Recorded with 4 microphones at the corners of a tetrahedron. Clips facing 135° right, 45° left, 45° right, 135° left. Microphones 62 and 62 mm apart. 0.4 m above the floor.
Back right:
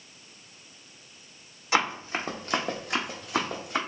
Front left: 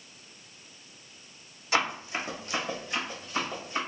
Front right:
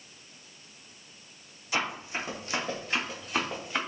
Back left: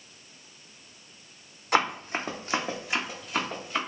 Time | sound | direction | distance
1.7 | running footsteps | 160° left | 0.9 m